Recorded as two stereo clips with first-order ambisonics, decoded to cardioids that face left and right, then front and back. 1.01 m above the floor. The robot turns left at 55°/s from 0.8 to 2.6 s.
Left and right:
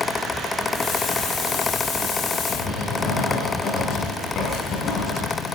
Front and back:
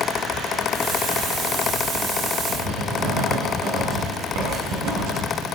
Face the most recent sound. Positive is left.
turn(degrees=155)